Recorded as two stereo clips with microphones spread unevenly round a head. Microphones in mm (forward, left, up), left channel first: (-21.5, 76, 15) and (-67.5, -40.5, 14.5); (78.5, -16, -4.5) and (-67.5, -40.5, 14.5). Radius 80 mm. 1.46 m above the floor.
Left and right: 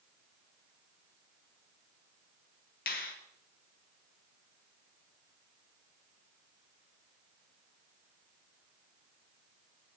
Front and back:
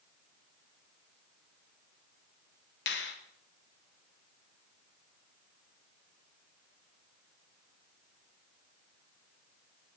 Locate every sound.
2.9 s a finger snap: 35° left, 1.1 m